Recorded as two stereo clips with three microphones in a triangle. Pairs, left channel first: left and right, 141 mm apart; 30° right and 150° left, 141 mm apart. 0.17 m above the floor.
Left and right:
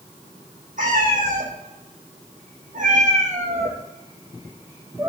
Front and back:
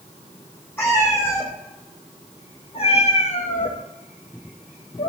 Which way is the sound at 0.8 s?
105° right.